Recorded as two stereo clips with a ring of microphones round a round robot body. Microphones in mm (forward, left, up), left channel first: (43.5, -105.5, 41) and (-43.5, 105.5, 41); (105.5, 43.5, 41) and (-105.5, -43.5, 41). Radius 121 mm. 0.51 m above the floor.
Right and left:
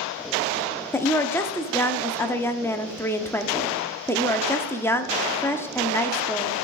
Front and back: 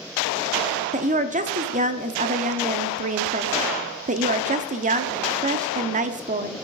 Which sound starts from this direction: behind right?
A woman speaking, at 0.9 s.